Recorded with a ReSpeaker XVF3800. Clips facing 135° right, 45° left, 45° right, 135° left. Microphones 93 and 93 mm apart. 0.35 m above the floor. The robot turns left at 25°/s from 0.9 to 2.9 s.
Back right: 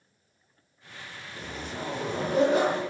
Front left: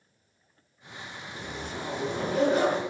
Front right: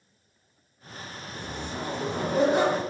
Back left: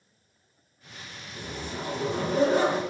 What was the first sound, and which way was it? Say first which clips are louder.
A zipper: even, front right 1 dB; 85° right.